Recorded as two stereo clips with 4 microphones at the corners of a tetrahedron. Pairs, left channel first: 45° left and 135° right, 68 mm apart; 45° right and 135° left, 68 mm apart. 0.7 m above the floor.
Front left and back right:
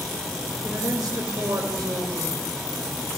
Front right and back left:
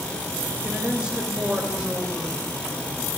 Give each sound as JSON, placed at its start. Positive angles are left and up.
{"t": 0.6, "sound": "a woman speaking", "azimuth_deg": -150, "distance_m": 2.5}